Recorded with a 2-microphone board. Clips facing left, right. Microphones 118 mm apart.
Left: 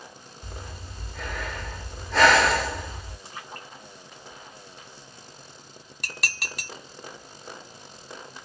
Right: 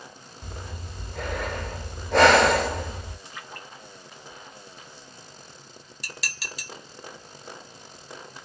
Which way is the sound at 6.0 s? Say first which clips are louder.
Left 4 dB; 55° left (ahead or behind).